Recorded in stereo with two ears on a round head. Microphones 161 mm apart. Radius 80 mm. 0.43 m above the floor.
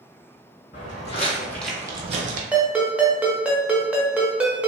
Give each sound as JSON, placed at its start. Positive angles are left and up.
{"t": 0.7, "sound": "footsteps", "side_deg": 50, "distance_m": 1.0}
{"t": 2.5, "sound": "a ringtone", "side_deg": -5, "distance_m": 0.6}